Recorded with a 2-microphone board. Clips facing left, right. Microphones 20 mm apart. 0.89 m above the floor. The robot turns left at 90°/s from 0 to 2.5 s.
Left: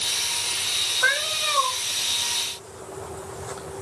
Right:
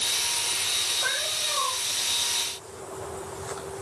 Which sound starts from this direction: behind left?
A cat meowing, at 1.0 s.